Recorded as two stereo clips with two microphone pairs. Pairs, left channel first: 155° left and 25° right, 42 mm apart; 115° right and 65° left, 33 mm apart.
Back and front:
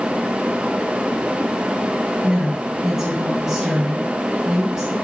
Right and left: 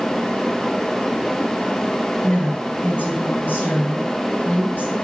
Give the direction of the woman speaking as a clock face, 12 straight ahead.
3 o'clock.